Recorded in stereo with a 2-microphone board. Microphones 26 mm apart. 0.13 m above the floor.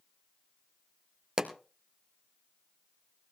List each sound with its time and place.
1.4 s a pop: 20° right (ahead or behind), 1.5 m